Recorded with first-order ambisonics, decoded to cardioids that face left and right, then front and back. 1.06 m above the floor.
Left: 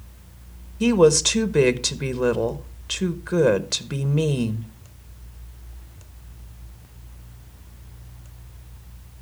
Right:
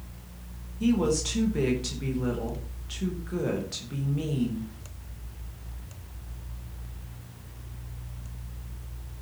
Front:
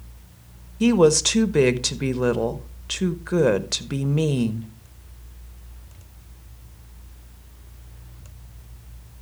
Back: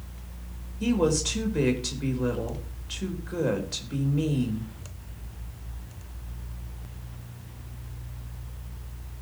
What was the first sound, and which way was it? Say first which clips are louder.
A woman speaking: left 10 dB, front 8 dB; 40° left.